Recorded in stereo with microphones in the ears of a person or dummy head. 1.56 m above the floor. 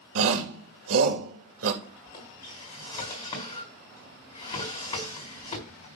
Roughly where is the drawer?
Left.